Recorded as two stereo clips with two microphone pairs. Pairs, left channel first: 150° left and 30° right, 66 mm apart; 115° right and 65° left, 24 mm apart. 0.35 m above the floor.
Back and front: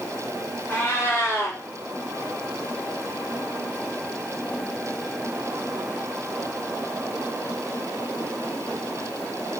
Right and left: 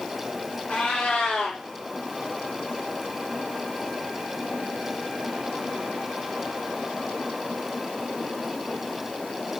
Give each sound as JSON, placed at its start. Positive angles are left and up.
{"t": 0.7, "sound": "a cat meowing", "azimuth_deg": -155, "distance_m": 2.0}